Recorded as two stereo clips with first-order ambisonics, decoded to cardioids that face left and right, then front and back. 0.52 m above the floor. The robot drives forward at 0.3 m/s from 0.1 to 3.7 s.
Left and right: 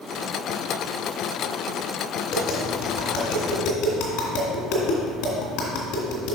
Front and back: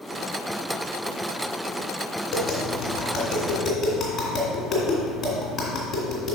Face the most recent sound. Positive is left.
turn(degrees=75)